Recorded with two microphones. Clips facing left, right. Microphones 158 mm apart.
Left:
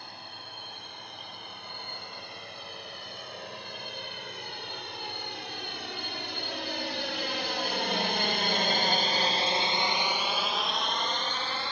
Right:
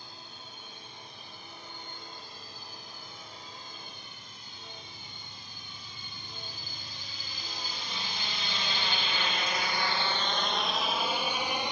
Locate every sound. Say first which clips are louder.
0.0 s a drone: left 4 dB; 60° left (ahead or behind); by 11.7 s 15° right (ahead or behind)